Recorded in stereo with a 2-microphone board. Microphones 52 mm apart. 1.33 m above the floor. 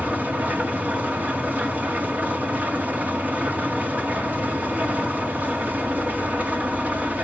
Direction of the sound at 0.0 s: 30° right (ahead or behind).